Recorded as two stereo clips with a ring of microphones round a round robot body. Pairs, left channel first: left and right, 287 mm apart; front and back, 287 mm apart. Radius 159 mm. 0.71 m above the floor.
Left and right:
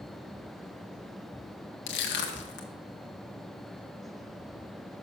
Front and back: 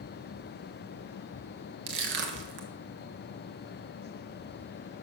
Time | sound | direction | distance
1.9 | crushing | 135° left | 1.1 m